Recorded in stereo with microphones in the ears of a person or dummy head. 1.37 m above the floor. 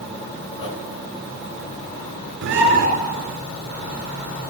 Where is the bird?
75° right (ahead or behind), 4.5 m.